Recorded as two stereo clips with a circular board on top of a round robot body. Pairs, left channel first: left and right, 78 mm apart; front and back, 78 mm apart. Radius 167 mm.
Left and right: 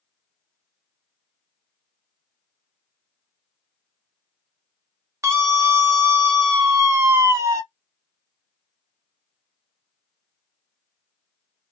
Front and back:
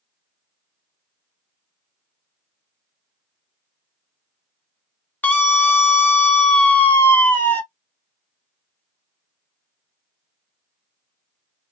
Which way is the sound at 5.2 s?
55° right.